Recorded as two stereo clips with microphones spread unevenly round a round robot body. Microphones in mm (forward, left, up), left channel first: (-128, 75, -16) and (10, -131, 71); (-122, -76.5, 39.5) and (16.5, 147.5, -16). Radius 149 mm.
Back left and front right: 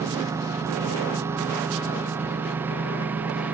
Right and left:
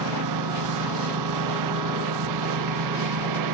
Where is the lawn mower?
25° left; by 3.5 s 30° left.